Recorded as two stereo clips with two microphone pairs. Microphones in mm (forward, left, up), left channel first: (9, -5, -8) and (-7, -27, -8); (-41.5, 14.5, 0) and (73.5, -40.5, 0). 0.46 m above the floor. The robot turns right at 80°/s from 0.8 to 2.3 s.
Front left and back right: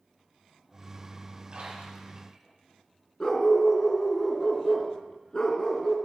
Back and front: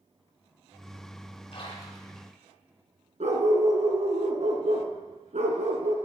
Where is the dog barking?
10° right, 2.5 m.